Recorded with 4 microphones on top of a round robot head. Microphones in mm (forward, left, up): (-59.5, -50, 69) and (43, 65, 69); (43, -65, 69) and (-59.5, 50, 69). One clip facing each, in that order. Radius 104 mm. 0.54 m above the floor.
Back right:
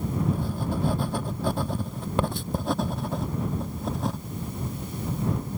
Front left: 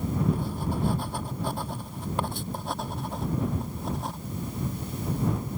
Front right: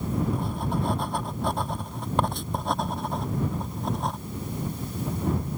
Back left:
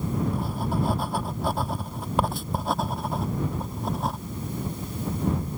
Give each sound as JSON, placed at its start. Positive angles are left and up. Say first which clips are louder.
{"t": 0.3, "sound": "writing", "louder": "back right 1 dB, back left 1 dB", "azimuth_deg": -140}